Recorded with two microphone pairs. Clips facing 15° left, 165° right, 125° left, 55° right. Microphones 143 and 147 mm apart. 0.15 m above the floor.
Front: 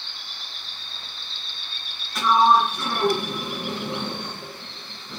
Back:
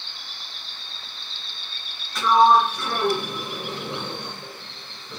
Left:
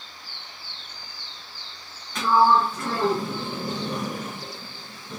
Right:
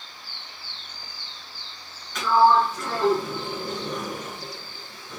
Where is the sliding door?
80° left, 2 m.